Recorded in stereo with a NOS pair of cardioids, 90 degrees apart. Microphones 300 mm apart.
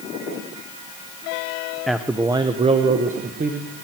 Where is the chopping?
No chopping in this recording.